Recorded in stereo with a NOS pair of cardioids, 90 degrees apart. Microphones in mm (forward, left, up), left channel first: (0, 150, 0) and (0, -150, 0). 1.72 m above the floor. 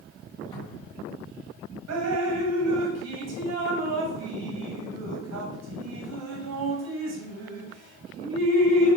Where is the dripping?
60° right, 1.2 m.